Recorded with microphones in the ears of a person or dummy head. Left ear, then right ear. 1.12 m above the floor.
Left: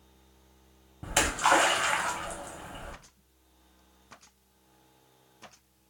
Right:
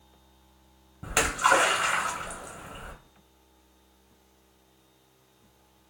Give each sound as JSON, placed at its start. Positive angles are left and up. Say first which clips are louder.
{"t": 1.0, "sound": "a splash", "louder": "right 2 dB", "side_deg": 5, "distance_m": 0.7}